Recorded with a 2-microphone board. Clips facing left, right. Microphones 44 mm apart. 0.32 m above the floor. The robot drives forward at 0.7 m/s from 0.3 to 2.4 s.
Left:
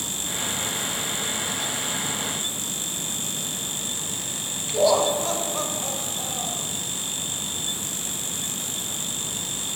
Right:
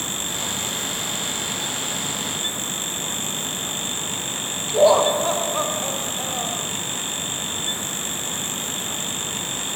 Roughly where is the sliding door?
No sliding door in this recording.